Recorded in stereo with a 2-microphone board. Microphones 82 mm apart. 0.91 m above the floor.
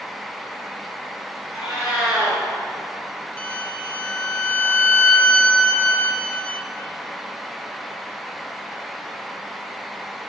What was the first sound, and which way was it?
A cat meowing, 5° right (ahead or behind).